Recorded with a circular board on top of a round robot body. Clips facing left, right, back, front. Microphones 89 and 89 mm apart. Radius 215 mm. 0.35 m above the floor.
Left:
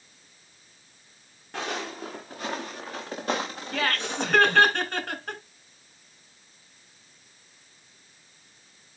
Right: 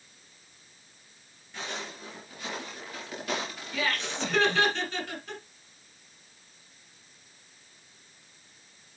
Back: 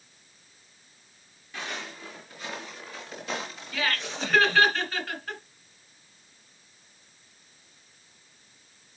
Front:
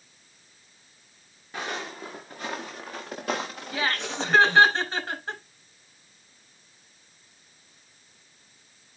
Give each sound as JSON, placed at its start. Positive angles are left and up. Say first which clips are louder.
{"t": 1.5, "sound": "footsteps", "louder": "left 6 dB, front 4 dB", "azimuth_deg": 55, "distance_m": 2.5}
{"t": 3.7, "sound": "laughter", "louder": "left 3 dB, front 2 dB", "azimuth_deg": 60, "distance_m": 4.0}